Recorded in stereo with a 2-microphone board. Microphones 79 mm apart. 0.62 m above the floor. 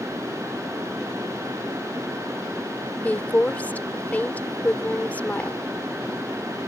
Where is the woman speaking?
20° left (ahead or behind).